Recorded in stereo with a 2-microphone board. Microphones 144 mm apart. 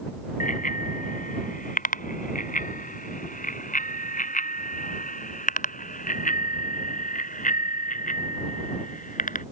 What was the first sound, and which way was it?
A bicycle bell, 70° left (ahead or behind).